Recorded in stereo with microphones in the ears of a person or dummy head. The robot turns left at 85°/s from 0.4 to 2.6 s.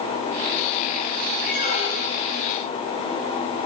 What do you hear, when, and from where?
1.5 s a squeak: 70° left, 2 m; by 2.3 s straight ahead, 2 m